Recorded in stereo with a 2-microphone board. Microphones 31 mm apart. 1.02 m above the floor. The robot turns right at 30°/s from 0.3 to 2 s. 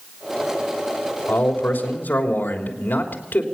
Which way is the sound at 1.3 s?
75° left (ahead or behind).